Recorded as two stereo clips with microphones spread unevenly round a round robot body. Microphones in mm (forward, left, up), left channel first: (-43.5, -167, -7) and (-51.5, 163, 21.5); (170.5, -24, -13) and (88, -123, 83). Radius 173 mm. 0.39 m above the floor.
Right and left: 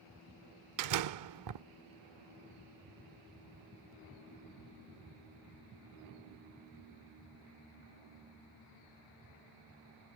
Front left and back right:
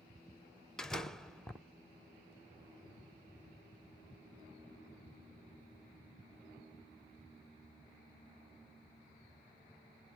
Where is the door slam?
90° left.